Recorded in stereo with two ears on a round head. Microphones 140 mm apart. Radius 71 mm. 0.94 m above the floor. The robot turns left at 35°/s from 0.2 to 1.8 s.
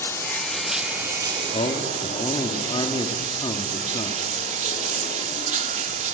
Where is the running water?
15° left, 1.3 m; by 6.1 s 40° right, 1.3 m.